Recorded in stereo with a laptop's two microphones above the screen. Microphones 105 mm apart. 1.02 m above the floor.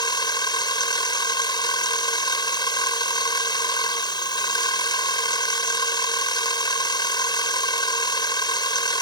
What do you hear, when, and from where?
0.0 s a machine running: 40° left (ahead or behind)